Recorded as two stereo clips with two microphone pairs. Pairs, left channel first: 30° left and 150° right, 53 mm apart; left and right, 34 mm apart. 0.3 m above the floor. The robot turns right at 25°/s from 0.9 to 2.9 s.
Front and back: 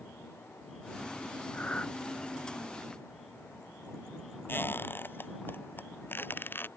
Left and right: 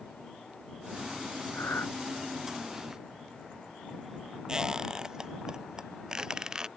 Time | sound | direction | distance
1.5 | breathing | 90° left | ?
4.5 | a squeak | 20° right | ?